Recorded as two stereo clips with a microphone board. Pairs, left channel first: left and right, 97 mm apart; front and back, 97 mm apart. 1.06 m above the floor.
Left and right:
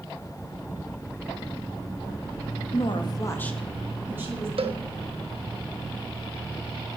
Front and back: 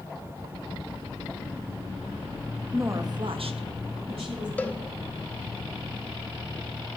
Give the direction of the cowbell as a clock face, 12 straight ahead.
2 o'clock.